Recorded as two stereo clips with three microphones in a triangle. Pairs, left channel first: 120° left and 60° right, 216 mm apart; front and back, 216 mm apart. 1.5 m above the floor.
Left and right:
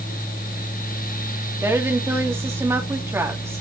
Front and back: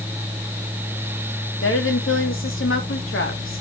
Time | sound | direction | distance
1.6 | a woman speaking | 20° left | 2.5 m